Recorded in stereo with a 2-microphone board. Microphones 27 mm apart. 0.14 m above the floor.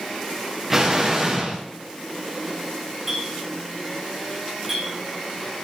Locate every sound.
0.7 s an explosion: 5° right (ahead or behind), 7 m
3.1 s a clink: 5° right (ahead or behind), 9 m